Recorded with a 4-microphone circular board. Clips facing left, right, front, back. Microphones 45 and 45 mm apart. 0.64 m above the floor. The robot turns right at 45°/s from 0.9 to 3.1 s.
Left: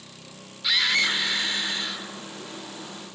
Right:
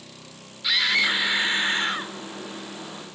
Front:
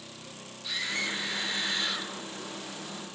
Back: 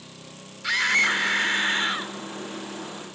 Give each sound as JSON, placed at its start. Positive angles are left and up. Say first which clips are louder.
{"t": 0.6, "sound": "a scream", "louder": "right 1 dB, back 12 dB", "azimuth_deg": 180, "distance_m": 1.4}